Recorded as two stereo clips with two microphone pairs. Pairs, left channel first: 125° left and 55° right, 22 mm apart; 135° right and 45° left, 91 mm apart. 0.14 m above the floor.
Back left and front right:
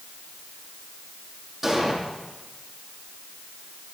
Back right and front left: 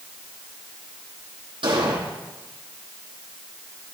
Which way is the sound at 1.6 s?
35° left.